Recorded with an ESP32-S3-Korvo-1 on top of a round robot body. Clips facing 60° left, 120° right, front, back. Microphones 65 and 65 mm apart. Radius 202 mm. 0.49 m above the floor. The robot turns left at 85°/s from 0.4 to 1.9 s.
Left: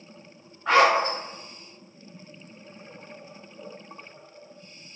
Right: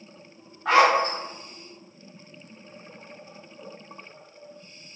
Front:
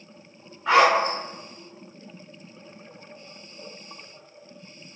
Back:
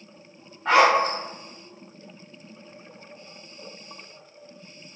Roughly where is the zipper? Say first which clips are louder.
Right 1 dB, even; behind right.